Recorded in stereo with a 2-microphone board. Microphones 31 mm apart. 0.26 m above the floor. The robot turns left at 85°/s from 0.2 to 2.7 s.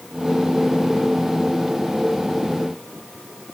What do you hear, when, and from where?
Only background noise.